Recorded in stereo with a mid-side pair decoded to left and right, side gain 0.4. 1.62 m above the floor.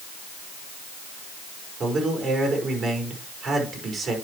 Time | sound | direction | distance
1.8 | a man speaking | 55° right | 5 m